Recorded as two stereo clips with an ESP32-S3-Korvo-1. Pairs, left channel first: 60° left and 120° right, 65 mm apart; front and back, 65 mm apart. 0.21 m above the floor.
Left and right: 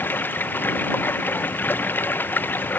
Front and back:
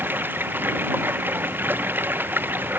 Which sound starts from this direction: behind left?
Running water, at 0.0 s.